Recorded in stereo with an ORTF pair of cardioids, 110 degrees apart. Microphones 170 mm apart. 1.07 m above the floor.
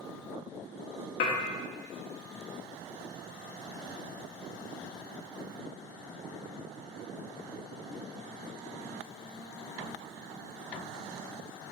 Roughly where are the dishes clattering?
Ahead left.